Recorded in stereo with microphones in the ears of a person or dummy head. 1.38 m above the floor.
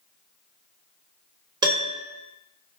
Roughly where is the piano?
Right.